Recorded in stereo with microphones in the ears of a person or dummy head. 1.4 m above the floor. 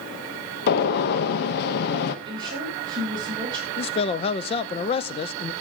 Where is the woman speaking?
25° right (ahead or behind), 7.5 m.